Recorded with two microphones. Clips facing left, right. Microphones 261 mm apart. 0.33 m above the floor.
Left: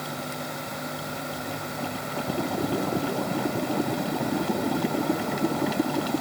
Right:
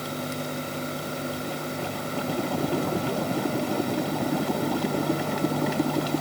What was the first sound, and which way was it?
Only background noise.